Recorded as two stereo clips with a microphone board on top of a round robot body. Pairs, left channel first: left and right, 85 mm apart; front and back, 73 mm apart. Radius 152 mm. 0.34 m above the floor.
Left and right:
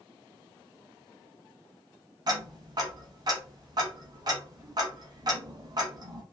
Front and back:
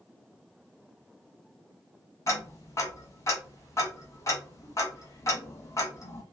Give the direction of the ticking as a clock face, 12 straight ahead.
2 o'clock.